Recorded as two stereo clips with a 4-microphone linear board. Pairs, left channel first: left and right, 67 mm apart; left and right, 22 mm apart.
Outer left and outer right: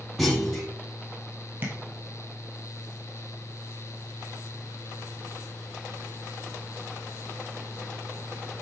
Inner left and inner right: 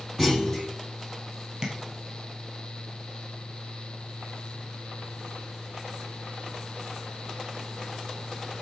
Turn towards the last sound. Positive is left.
turn(degrees=-30)  # may be behind; listen again after turning